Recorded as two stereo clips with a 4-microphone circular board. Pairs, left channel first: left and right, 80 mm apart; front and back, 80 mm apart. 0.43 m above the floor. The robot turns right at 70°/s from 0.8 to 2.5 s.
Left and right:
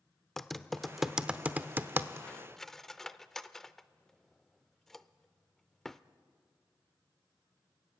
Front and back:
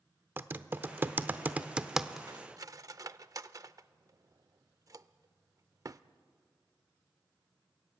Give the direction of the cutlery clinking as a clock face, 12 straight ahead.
7 o'clock.